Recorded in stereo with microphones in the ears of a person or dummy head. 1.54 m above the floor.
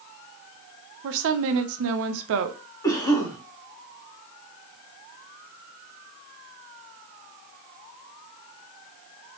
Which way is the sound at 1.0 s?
70° right (ahead or behind).